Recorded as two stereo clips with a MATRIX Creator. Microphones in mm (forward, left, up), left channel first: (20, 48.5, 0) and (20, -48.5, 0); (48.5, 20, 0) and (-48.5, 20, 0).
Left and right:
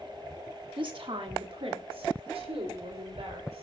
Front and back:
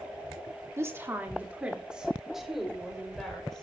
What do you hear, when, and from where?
0.8 s a woman speaking: 120° right, 2 m; by 3.6 s 85° right, 4 m